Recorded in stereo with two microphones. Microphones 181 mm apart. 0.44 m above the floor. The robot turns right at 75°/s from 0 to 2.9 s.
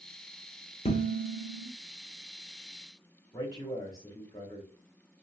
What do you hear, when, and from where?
0.8 s dishes clattering: 50° left, 1.1 m; by 1.7 s 110° left, 1.1 m
3.3 s a man speaking: 20° left (ahead or behind), 1.2 m